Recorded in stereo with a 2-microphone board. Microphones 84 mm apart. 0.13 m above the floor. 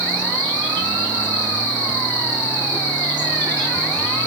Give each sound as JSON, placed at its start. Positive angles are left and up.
{"t": 0.0, "sound": "an insect", "side_deg": 15, "distance_m": 2.0}